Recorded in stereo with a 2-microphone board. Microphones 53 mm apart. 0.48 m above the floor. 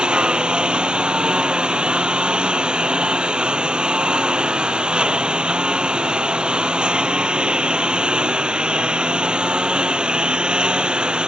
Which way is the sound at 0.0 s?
20° right (ahead or behind).